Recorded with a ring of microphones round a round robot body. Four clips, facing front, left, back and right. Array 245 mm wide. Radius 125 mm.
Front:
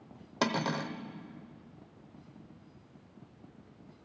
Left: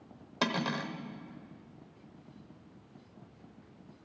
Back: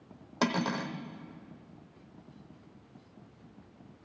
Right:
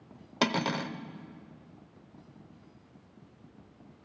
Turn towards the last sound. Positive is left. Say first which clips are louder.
# right 3 dB, back 1 dB
turn(degrees=-80)